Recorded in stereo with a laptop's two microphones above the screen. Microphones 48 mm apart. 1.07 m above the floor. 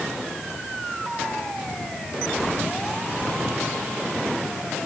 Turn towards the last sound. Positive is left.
No sound to turn to.